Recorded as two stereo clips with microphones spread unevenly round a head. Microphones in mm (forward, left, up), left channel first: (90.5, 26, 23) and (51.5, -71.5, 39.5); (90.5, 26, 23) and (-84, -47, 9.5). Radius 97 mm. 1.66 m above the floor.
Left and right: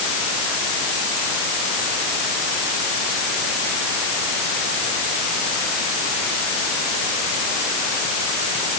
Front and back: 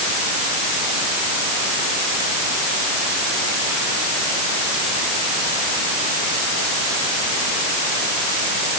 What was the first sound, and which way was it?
Only background noise.